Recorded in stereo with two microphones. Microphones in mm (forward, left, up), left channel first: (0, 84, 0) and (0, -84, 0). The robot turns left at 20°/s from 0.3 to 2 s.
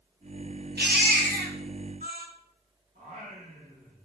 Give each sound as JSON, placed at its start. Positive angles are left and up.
{"t": 0.8, "sound": "a baby crying", "side_deg": -85, "distance_m": 1.8}
{"t": 3.0, "sound": "singing", "side_deg": -70, "distance_m": 5.5}